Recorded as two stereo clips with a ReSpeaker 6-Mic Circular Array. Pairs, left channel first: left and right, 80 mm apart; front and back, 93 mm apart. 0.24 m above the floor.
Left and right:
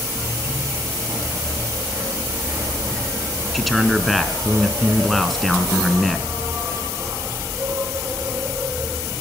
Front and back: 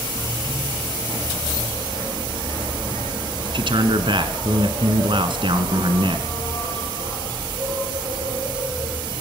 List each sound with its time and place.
0.0 s an insect: 145° right, 7 m
3.5 s a man speaking: straight behind, 2.5 m